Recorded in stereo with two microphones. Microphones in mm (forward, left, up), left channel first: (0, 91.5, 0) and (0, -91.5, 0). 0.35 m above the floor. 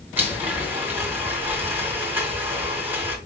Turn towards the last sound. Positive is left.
turn(degrees=-10)  # may be behind; listen again after turning